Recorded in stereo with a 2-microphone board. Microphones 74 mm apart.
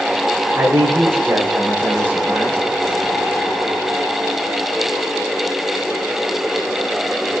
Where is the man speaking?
30° right (ahead or behind), 7.5 m; by 2.6 s 20° right (ahead or behind), 9 m.